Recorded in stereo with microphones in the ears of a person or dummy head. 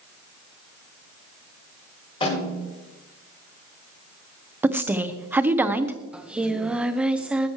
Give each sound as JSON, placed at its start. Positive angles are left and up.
{"t": 2.2, "sound": "a snare drum", "side_deg": 30, "distance_m": 5.5}
{"t": 4.6, "sound": "a woman speaking", "side_deg": -15, "distance_m": 1.1}
{"t": 6.1, "sound": "singing", "side_deg": -10, "distance_m": 0.9}